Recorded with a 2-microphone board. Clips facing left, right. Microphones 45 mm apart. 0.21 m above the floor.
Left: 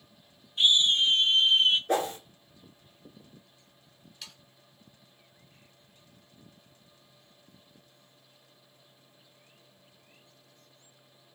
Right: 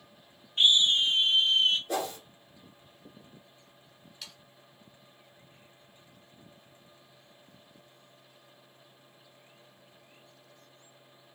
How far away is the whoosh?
About 1.0 m.